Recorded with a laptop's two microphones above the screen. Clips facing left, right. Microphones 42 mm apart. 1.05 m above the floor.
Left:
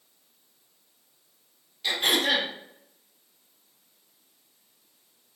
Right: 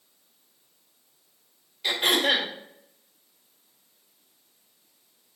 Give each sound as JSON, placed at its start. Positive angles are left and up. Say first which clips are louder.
{"t": 1.8, "sound": "throat clearing", "louder": "right 1 dB", "side_deg": -20, "distance_m": 1.7}